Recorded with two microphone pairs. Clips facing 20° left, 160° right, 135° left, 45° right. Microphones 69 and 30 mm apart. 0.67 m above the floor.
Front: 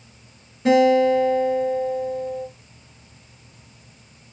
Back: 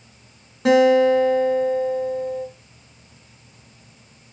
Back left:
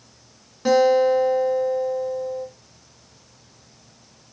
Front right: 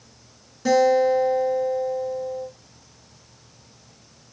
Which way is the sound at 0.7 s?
160° right.